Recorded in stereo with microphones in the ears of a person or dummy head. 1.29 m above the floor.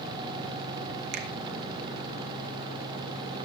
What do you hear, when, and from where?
1.1 s a finger snap: 60° right (ahead or behind), 1.0 m